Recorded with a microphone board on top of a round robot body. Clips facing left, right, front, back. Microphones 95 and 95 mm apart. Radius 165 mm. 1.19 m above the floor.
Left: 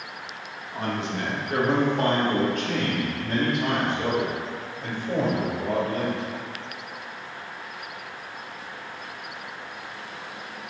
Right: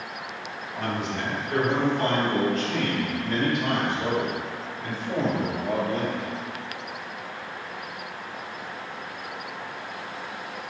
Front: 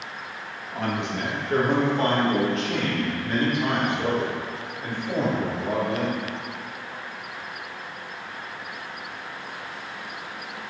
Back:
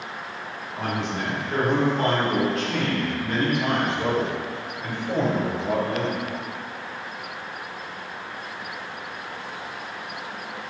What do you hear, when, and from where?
0.7 s a man speaking: 20° left, 2.0 m; by 6.2 s 80° left, 6.5 m